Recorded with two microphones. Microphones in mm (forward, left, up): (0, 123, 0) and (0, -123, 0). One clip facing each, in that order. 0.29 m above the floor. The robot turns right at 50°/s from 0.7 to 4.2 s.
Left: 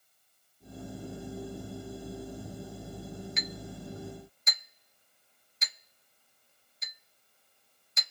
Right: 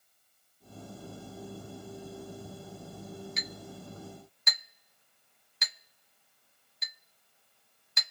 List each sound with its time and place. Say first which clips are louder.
3.4 s a clink: left 3 dB; 40° right (ahead or behind), 1.5 m; by 8.1 s 70° right (ahead or behind), 1.5 m